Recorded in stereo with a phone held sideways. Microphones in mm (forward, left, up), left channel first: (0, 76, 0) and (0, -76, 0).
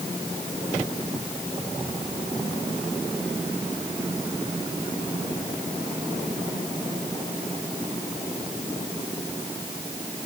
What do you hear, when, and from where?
Only background noise.